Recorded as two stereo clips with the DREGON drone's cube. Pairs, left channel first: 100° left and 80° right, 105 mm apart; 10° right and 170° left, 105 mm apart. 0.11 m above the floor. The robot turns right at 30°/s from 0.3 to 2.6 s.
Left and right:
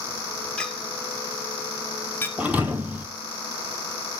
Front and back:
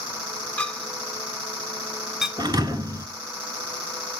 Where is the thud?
155° right, 0.8 m; by 3.1 s 150° right, 0.8 m.